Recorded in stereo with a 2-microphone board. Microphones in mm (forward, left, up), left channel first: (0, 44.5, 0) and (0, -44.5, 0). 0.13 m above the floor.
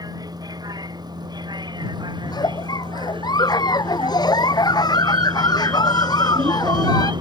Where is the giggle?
50° left (ahead or behind).